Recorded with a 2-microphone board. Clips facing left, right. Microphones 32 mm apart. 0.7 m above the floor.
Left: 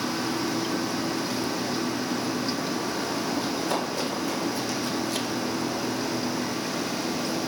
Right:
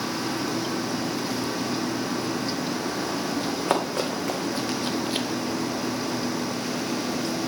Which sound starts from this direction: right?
Running footsteps, at 3.4 s.